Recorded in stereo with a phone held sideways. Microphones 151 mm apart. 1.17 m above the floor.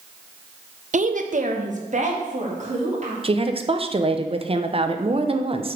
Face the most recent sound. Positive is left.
turn(degrees=-40)  # may be behind; listen again after turning